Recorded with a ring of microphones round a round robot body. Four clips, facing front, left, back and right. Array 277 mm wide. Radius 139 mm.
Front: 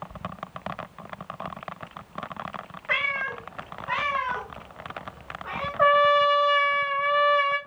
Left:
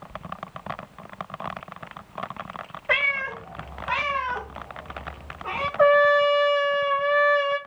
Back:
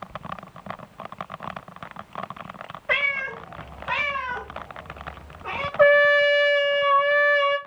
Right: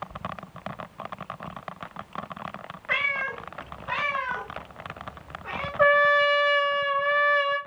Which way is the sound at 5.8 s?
Straight behind.